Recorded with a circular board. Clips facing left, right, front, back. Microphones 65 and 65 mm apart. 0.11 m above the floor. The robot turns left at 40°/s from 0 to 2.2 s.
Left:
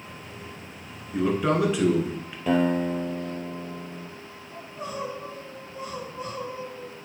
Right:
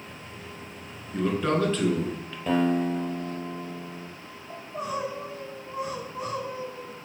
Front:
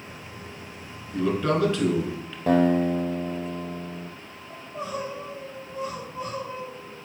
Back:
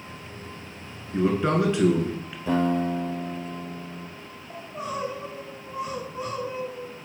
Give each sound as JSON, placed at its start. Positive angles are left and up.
{"t": 1.1, "sound": "a man speaking", "azimuth_deg": 170, "distance_m": 1.2}
{"t": 2.5, "sound": "a guitar", "azimuth_deg": 0, "distance_m": 1.5}
{"t": 4.5, "sound": "crying", "azimuth_deg": -110, "distance_m": 3.5}